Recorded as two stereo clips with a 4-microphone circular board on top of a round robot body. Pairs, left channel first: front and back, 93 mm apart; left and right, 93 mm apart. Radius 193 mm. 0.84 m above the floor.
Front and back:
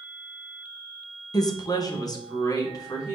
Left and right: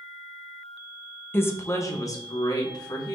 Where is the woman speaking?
30° left, 0.8 m; by 3.2 s 50° left, 1.6 m.